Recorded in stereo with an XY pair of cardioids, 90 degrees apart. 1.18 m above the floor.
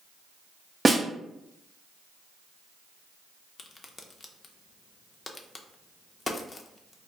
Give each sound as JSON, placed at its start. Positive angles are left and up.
{"t": 0.8, "sound": "a snare drum", "azimuth_deg": -25, "distance_m": 0.6}
{"t": 3.6, "sound": "a crack", "azimuth_deg": 35, "distance_m": 0.5}